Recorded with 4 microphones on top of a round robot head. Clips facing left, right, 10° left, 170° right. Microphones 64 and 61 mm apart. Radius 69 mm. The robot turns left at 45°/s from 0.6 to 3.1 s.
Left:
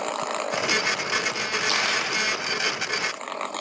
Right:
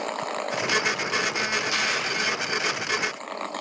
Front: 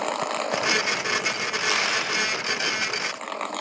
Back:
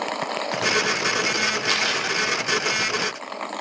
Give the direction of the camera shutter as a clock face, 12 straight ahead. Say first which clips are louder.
Left 1 dB, back 1 dB; 9 o'clock.